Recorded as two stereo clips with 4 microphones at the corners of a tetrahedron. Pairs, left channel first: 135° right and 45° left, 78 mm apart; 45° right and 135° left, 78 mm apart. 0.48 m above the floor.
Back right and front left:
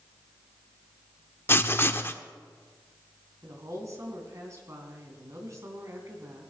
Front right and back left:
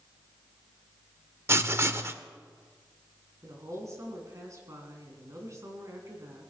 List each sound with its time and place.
1.5 s writing: 175° left, 0.7 m
3.4 s a woman speaking: 90° left, 3.5 m